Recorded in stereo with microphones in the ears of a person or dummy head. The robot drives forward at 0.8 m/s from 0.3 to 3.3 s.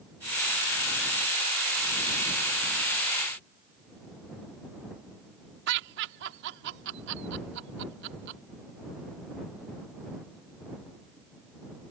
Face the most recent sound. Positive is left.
turn(degrees=-65)  # may be behind; listen again after turning